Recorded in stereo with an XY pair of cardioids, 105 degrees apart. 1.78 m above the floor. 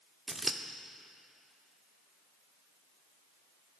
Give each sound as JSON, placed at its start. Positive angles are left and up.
{"t": 0.3, "sound": "scissors", "azimuth_deg": -15, "distance_m": 0.8}